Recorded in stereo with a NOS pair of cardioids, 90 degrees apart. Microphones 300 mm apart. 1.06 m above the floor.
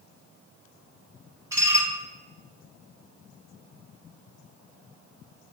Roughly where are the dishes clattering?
Ahead.